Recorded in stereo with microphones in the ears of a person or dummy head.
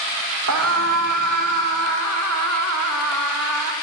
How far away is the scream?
About 2.5 m.